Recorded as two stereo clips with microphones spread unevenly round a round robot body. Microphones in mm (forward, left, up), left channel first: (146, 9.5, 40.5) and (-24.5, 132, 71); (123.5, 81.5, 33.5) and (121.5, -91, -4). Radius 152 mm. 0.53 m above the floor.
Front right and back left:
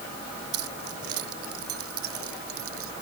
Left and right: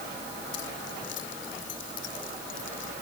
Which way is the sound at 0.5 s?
145° left.